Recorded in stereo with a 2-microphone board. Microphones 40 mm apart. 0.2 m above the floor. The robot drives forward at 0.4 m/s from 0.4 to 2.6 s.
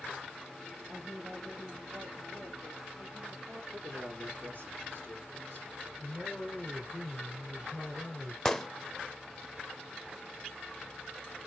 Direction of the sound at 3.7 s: 65° right (ahead or behind).